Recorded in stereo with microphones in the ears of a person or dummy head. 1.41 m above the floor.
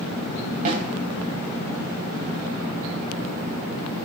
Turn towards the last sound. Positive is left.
turn(degrees=-45)  # may be behind; listen again after turning